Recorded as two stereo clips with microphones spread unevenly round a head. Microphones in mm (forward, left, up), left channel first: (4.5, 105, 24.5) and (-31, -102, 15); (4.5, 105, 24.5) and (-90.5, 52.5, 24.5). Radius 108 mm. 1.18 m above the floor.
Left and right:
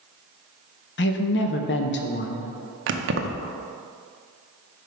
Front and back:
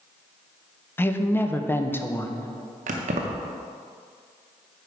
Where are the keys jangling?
135° right, 0.5 m.